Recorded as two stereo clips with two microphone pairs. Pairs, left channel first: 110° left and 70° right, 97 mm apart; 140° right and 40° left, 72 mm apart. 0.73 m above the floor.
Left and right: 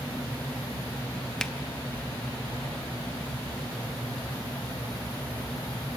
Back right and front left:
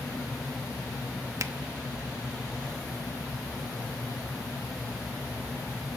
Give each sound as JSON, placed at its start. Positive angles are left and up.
{"t": 1.4, "sound": "a finger snap", "azimuth_deg": 30, "distance_m": 0.8}